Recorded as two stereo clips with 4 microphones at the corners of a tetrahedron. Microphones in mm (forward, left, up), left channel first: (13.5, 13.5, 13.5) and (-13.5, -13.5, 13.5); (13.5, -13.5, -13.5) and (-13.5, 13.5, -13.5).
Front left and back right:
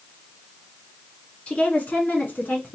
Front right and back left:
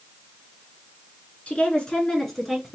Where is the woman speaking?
Straight ahead, 1.7 m; by 2.8 s 50° left, 2.0 m.